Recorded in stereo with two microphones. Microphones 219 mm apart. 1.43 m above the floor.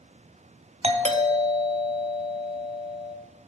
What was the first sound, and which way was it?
A doorbell, 30° right (ahead or behind).